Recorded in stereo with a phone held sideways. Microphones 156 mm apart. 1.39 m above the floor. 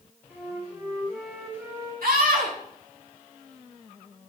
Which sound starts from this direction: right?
A scream, at 2.0 s.